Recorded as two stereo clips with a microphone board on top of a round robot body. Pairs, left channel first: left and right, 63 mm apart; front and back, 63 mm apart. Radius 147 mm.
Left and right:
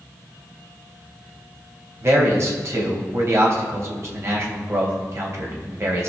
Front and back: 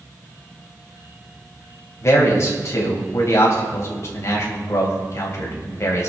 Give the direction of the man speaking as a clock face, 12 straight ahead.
1 o'clock.